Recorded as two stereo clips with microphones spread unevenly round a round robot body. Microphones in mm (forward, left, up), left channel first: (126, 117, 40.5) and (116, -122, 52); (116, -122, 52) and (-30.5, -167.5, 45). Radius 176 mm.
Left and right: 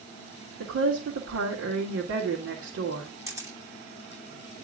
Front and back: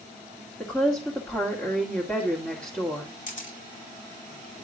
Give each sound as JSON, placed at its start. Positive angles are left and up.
{"t": 0.6, "sound": "a woman speaking", "azimuth_deg": -65, "distance_m": 2.0}
{"t": 3.3, "sound": "a camera shutter", "azimuth_deg": -15, "distance_m": 2.5}